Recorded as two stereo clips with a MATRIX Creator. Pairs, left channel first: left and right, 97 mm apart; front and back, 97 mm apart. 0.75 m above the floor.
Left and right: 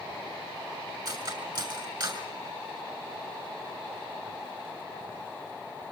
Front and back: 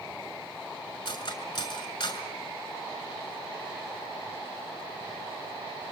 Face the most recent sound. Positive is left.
turn(degrees=-45)